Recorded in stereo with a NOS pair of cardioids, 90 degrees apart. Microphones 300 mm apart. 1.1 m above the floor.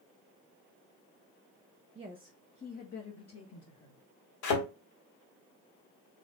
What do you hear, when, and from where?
1.9 s a woman speaking: 25° right, 0.6 m; by 4.0 s 55° left, 1.7 m
4.4 s a thud: 70° left, 1.6 m